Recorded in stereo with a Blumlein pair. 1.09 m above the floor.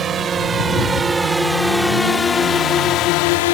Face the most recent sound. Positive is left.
turn(degrees=55)